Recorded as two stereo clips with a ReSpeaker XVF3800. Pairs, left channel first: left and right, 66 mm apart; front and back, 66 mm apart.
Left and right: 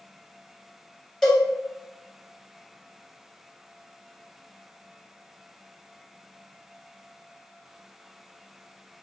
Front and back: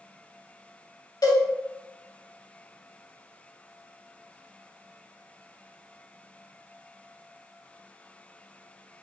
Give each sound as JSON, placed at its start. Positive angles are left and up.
{"t": 1.2, "sound": "a cowbell", "azimuth_deg": 10, "distance_m": 2.0}